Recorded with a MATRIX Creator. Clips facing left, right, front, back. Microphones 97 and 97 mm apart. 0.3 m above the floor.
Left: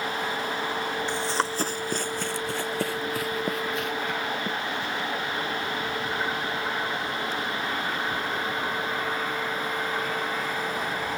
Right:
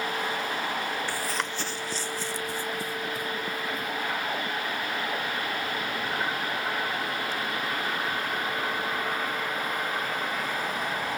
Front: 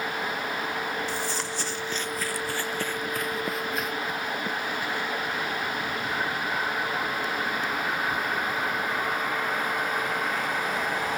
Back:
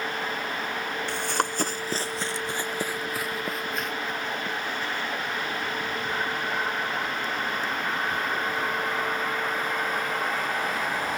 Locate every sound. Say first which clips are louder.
1.1 s running footsteps: left 4 dB, back 3 dB; 160° left; by 5.1 s 75° left